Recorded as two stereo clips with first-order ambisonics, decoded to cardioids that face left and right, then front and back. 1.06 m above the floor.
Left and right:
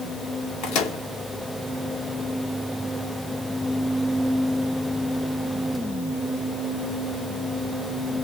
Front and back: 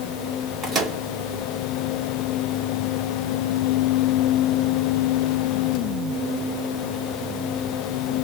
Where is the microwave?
120° left, 1.7 m.